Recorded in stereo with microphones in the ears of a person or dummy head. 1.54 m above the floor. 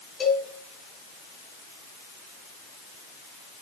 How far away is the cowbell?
About 4.5 m.